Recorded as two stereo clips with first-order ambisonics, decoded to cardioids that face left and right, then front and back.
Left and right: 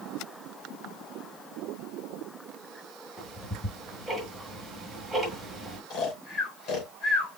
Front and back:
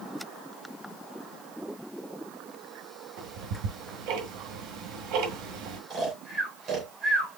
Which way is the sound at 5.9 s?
130° left.